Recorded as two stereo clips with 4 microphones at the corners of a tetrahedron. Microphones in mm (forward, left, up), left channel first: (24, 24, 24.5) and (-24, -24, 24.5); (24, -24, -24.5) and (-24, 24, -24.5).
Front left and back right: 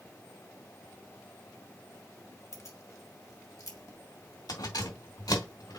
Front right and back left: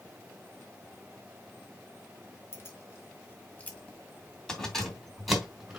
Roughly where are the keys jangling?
Ahead.